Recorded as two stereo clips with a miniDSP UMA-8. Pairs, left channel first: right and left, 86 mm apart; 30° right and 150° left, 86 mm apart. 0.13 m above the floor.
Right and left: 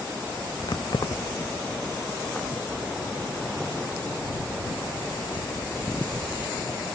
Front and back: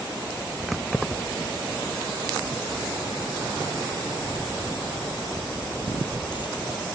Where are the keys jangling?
120° right; by 6.5 s 65° right.